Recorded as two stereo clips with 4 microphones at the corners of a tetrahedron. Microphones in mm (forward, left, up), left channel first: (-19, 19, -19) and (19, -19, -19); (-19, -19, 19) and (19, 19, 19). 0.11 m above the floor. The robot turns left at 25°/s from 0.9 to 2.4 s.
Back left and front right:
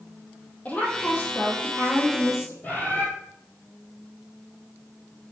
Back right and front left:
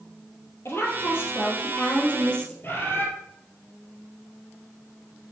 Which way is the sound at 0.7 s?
165° right.